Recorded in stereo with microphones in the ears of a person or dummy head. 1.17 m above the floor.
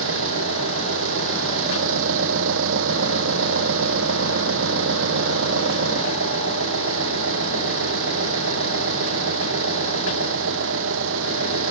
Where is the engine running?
75° right (ahead or behind).